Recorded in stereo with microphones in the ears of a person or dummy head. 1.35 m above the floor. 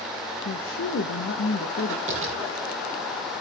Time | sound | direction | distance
0.5 | a woman speaking | 75° left (ahead or behind) | 1.2 m
2.1 | tapping | 35° right (ahead or behind) | 8.5 m